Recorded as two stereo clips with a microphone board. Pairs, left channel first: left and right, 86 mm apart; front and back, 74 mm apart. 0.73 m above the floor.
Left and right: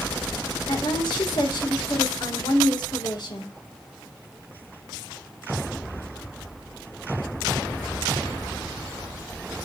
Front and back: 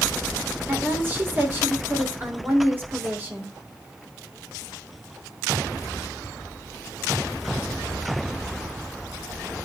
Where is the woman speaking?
120° left, 3 m.